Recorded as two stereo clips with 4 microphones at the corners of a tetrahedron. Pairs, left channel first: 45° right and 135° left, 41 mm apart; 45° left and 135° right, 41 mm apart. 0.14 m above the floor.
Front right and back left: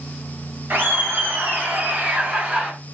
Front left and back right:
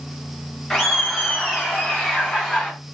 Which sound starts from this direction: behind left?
Laughter, at 0.7 s.